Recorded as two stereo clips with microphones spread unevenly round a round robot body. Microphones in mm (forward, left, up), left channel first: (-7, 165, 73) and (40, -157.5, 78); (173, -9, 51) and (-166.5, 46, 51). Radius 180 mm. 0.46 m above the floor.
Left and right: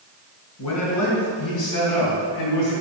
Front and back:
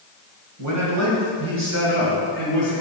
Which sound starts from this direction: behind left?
A man speaking, at 0.6 s.